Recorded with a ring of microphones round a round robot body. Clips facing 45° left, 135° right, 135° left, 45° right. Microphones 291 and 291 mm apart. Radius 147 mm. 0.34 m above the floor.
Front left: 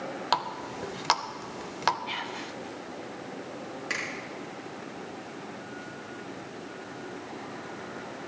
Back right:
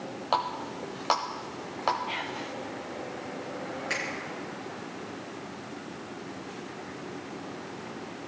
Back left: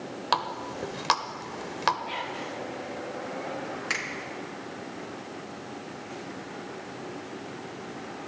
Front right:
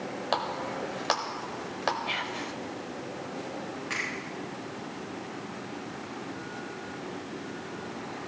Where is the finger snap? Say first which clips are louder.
Back right 2 dB, even; 115° left, 4 m.